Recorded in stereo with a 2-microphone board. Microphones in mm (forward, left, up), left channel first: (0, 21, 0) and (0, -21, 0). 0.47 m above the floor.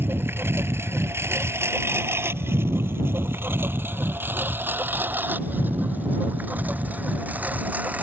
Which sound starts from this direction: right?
A lawn mower, at 0.0 s.